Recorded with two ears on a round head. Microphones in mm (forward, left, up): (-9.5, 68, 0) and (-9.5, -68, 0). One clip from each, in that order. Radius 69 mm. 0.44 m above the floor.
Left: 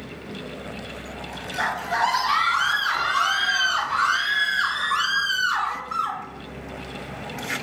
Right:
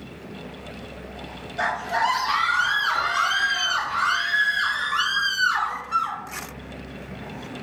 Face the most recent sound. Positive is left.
turn(degrees=50)  # may be behind; listen again after turning